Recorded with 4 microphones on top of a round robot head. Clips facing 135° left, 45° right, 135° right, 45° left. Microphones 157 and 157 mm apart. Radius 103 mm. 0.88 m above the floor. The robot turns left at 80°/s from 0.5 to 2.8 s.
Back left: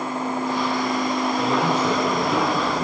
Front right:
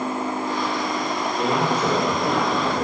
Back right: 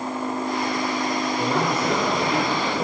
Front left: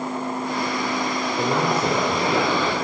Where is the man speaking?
40° left, 3 m; by 2.9 s 70° right, 3 m.